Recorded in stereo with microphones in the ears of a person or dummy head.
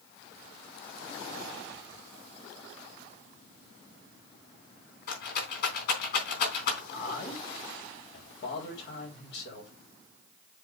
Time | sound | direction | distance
5.1 | a rattle | 65° left (ahead or behind) | 3 m
6.9 | a man speaking | 75° left (ahead or behind) | 3.5 m